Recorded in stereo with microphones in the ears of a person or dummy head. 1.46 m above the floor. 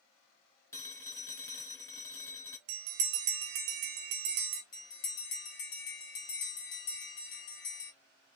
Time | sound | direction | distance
0.7 | a phone ringing | 20° left (ahead or behind) | 0.6 m
2.7 | a bell | 45° right (ahead or behind) | 0.9 m
4.7 | a bell | 45° left (ahead or behind) | 1.2 m